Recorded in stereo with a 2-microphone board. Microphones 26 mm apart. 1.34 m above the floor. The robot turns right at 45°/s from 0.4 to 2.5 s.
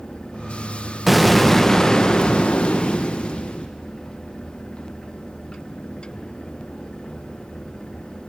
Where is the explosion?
5° right, 0.5 m; by 3.7 s 60° left, 0.5 m.